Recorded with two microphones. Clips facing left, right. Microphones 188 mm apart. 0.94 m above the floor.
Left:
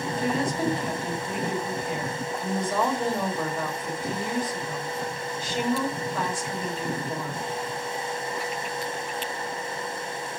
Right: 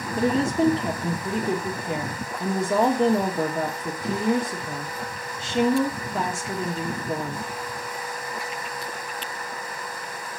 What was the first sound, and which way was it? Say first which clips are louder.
A woman speaking: right 6 dB; 45° right (ahead or behind).